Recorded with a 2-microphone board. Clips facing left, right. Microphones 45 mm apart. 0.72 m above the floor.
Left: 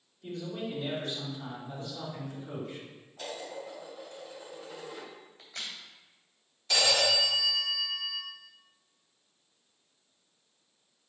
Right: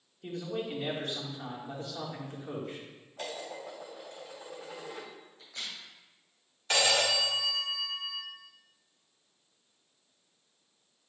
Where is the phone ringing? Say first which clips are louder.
Even; 45° right (ahead or behind), 1.3 m.